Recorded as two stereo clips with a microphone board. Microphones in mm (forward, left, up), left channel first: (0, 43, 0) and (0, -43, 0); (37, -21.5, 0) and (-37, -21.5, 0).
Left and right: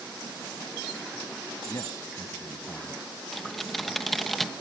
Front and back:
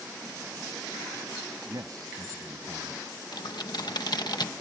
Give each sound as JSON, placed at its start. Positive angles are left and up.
{"t": 1.7, "sound": "a man speaking", "azimuth_deg": 145}
{"t": 3.3, "sound": "typing on a keyboard", "azimuth_deg": 0}